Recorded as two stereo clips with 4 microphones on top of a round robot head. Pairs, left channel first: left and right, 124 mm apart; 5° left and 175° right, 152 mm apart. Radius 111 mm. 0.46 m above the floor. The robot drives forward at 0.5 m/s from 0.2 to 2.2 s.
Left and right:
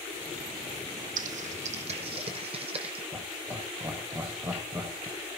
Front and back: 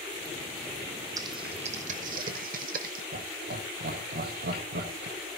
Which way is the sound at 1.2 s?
105° right.